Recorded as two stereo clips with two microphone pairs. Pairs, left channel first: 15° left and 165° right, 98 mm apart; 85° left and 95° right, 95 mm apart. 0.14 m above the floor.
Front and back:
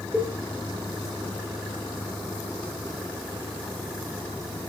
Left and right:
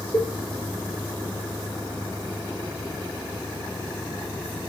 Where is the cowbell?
130° left, 2.0 m.